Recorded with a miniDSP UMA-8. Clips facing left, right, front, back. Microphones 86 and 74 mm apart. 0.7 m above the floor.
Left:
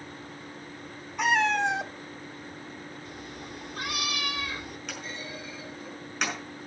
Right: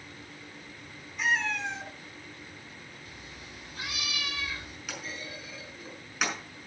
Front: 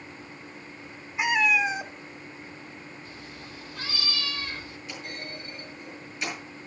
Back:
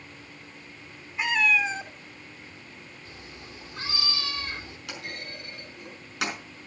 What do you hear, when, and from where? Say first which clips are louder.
1.2 s a cat meowing: left 6 dB, front 1 dB; 70° left, 0.7 m
3.0 s a cat meowing: left 6 dB, front 2 dB; 125° left, 3 m
4.9 s a clunk: right 1 dB, even; 175° right, 5.5 m